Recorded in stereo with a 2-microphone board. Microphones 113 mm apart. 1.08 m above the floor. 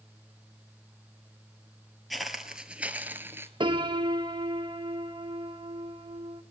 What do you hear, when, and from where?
2.1 s footsteps: centre (ahead or behind), 1.3 m; by 3.5 s 25° right (ahead or behind), 1.1 m
3.6 s a piano: 50° right (ahead or behind), 0.9 m